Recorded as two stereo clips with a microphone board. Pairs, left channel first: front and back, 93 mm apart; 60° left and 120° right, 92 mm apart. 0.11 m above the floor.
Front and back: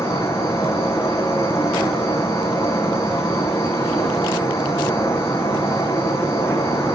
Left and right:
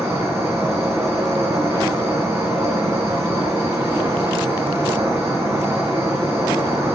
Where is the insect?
60° right, 4 m.